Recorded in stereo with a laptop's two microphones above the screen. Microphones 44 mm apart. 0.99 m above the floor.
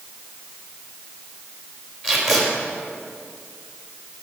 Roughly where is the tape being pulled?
Centre.